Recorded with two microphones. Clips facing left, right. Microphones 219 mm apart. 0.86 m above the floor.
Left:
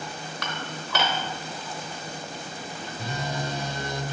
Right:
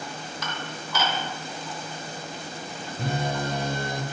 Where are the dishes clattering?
80° left, 1.0 m.